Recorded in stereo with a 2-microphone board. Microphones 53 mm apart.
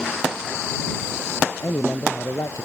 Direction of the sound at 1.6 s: 65° left (ahead or behind).